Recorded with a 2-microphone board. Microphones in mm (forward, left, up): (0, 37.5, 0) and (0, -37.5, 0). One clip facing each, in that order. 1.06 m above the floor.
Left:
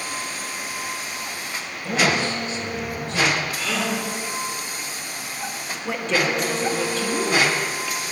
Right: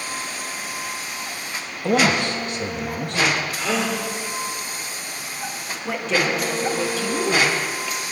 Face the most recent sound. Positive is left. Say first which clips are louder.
# even
turn(degrees=0)  # may be behind; listen again after turning